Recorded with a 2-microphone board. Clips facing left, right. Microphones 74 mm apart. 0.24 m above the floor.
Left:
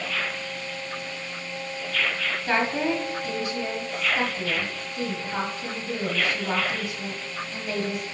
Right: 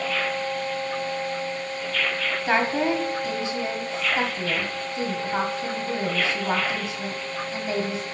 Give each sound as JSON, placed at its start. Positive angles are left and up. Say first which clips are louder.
{"t": 2.5, "sound": "a woman speaking", "louder": "right 2 dB", "side_deg": -25, "distance_m": 1.3}